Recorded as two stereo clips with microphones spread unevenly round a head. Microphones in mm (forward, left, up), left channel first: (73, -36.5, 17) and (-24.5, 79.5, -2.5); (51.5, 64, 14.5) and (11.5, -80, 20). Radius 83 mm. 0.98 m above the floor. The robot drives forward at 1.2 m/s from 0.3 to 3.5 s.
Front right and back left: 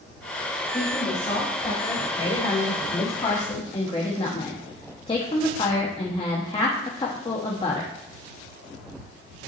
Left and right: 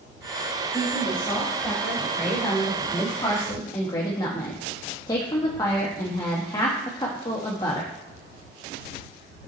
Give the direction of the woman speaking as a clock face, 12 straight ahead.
12 o'clock.